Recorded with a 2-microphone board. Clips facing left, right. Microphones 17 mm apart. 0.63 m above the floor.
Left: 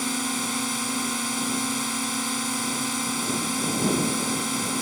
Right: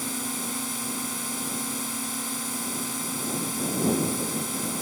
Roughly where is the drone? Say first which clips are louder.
Left 5 dB; left.